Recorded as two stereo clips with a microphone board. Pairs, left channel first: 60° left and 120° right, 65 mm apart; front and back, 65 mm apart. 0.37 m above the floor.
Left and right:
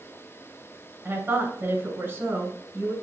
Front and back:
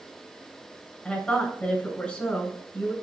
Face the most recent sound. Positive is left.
turn(degrees=-70)